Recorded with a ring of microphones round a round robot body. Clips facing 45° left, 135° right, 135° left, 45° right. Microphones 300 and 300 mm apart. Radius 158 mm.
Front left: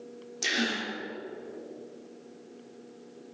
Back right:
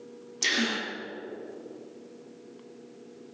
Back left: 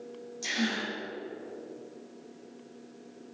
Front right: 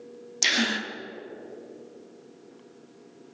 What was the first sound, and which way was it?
A gasp, 55° right.